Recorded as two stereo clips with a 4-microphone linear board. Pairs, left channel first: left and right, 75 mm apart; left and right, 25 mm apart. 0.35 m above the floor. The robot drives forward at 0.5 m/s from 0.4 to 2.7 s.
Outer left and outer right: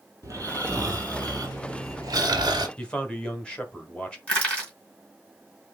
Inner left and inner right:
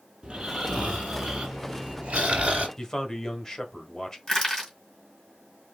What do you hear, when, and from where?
0.2 s snoring: 40° right (ahead or behind), 2.5 m; by 2.7 s 70° right (ahead or behind), 1.7 m
2.8 s a man speaking: 15° left (ahead or behind), 1.1 m
4.3 s crushing: 15° left (ahead or behind), 2.5 m